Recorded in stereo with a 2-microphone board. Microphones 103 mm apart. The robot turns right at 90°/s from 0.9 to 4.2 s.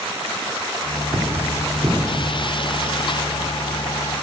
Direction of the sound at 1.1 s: 60° right (ahead or behind).